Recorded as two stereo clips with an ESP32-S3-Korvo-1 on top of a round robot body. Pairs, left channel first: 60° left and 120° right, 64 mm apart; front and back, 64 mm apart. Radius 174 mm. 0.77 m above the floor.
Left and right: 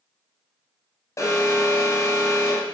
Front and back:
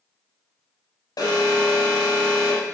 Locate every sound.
1.2 s an alarm: 20° left, 5 m